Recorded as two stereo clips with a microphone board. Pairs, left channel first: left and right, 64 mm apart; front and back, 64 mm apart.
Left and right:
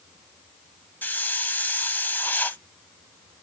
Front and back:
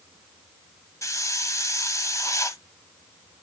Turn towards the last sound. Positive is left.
turn(degrees=30)